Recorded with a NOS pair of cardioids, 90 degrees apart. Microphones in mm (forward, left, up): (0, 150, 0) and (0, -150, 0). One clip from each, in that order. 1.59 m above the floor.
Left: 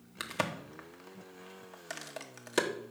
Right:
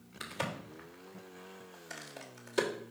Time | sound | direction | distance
0.2 | a crack | 70° left | 1.1 m